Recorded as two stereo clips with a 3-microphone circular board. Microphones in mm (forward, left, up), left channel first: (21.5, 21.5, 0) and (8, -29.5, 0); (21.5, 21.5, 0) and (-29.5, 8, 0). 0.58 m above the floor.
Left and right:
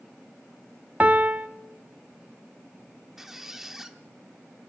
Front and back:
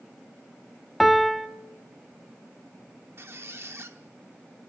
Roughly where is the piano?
Right.